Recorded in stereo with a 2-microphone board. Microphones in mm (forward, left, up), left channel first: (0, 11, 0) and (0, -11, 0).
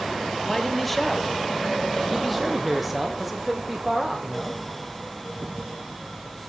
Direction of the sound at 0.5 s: 10° left (ahead or behind).